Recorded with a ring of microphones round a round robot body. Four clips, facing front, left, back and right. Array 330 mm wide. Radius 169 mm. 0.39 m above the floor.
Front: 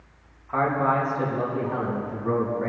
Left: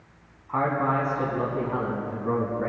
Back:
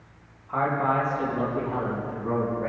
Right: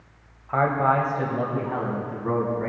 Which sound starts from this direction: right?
A man speaking, at 0.5 s.